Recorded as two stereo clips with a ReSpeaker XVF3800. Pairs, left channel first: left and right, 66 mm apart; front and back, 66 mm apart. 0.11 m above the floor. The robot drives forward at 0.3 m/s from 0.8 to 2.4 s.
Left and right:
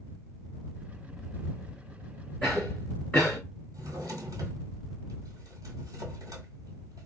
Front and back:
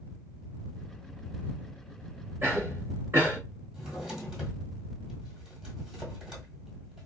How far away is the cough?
About 1.3 m.